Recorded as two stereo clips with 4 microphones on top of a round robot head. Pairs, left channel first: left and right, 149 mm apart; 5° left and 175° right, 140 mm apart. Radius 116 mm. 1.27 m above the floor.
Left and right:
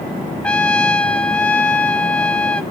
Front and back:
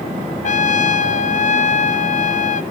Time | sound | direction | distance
0.4 | a trumpet | 10° left | 0.7 m